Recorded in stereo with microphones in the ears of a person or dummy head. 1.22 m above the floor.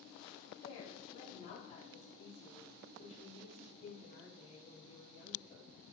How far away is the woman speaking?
About 1.7 m.